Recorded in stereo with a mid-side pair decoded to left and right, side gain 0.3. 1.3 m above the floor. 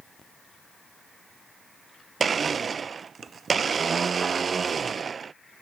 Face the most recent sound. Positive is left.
turn(degrees=-55)